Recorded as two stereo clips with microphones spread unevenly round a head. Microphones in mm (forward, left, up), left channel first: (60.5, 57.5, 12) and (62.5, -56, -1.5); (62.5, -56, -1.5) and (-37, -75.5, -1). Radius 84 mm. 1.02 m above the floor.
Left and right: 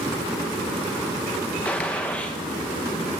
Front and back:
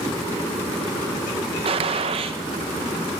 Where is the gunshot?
175° left, 0.8 m.